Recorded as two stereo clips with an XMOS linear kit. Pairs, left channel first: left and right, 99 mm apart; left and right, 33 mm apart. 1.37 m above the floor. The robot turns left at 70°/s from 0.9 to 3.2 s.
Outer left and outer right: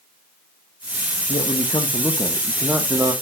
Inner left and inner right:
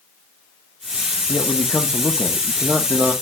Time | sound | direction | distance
1.3 | a man speaking | 90° left | 1.2 m